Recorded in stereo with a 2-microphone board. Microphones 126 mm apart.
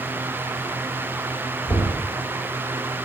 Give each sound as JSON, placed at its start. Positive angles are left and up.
{"t": 1.7, "sound": "knocking", "side_deg": 30, "distance_m": 3.5}